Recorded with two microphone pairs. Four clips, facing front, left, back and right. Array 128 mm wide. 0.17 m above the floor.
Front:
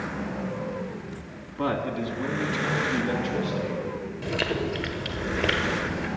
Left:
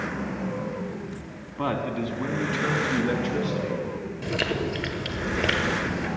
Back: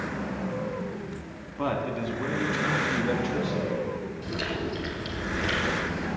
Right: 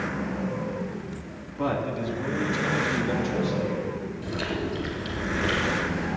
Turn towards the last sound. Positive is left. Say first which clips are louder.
# left 4 dB, front 6 dB
turn(degrees=45)